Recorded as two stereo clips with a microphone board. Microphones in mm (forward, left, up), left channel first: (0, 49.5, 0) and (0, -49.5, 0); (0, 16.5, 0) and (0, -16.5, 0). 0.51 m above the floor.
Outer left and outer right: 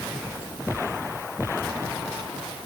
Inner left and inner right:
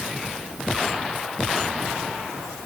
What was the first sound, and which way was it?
Only background noise.